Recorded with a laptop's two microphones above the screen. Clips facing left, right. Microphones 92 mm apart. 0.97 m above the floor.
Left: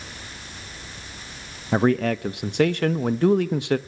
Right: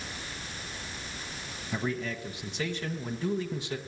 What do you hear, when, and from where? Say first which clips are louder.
1.7 s a man speaking: left 13 dB; 65° left (ahead or behind), 0.9 m